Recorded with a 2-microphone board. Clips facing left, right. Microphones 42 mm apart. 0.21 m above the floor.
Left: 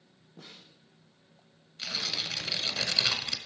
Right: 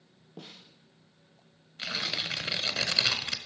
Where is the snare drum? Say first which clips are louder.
Right 3 dB; 80° right, 2.5 m.